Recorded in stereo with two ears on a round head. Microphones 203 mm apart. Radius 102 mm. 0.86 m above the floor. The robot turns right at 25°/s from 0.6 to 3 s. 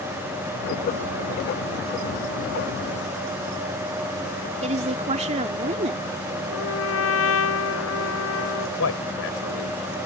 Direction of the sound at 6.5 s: 65° left (ahead or behind).